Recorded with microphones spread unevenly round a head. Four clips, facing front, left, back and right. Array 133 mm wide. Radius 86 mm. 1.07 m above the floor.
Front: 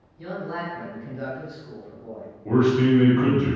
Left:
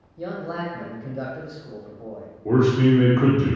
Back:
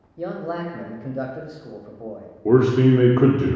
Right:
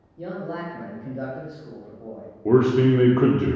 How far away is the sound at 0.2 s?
About 0.6 m.